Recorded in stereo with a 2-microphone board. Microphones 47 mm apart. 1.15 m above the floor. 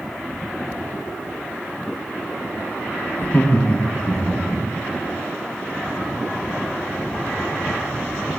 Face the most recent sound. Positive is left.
turn(degrees=25)  # may be behind; listen again after turning